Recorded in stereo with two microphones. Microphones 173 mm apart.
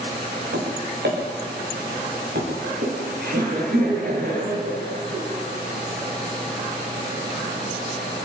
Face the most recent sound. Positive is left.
turn(degrees=-60)  # may be behind; listen again after turning